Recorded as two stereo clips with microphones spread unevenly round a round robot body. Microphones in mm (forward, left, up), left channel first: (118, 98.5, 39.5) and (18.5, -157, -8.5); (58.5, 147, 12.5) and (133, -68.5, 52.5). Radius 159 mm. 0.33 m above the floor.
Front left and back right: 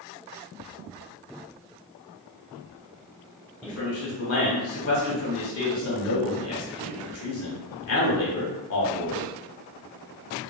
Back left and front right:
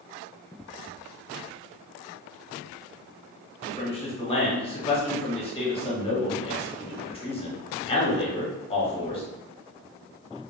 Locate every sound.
3.6 s a man speaking: 75° left, 1.1 m